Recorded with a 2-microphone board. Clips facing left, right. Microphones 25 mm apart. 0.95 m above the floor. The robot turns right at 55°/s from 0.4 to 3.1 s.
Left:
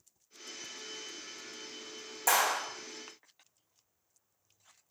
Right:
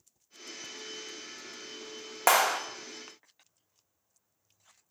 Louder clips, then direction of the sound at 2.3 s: Right 4 dB; 55° right (ahead or behind).